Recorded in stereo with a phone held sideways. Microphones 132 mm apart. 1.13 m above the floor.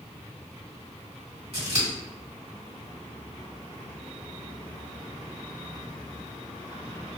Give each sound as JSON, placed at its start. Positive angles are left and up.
{"t": 1.5, "sound": "scissors", "side_deg": -50, "distance_m": 1.5}